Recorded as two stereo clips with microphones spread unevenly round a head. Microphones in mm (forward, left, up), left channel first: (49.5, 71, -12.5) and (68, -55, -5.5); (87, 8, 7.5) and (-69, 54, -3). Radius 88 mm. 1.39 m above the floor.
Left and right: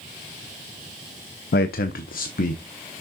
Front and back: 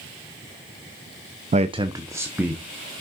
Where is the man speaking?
115° left, 0.5 m; by 2.6 s 80° left, 1.1 m.